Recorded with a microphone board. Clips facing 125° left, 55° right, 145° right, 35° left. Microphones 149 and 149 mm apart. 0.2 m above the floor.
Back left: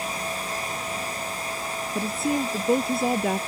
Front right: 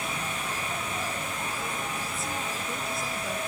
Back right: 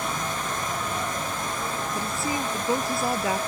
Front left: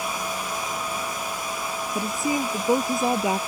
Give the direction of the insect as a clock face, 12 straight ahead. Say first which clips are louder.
Back left 3 dB, even; 4 o'clock.